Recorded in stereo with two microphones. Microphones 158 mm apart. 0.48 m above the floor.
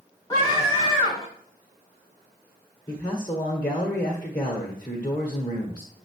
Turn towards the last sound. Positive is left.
turn(degrees=25)  # may be behind; listen again after turning